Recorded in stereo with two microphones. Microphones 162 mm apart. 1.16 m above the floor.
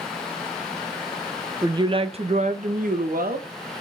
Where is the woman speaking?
20° right (ahead or behind), 0.9 m; by 3.8 s 70° right (ahead or behind), 1.6 m.